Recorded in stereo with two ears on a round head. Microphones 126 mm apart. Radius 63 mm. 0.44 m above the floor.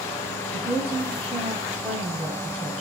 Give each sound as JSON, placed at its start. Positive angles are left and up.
{"t": 0.5, "sound": "a woman speaking", "side_deg": -10, "distance_m": 2.5}